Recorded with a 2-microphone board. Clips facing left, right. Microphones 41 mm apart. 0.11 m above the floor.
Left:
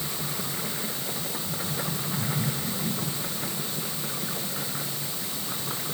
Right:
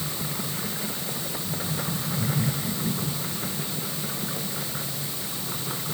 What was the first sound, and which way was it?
Only background noise.